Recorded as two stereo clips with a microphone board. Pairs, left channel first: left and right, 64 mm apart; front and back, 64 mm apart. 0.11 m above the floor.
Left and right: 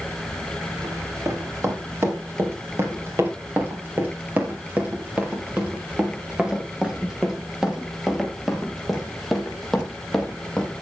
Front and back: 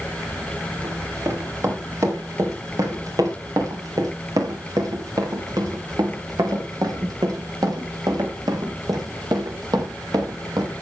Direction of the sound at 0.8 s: 135° right.